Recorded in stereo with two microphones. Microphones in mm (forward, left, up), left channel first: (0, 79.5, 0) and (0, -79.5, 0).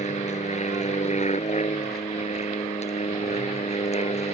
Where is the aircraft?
45° left (ahead or behind).